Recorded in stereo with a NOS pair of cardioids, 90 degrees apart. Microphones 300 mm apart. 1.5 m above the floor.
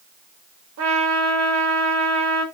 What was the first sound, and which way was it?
A trumpet, 65° right.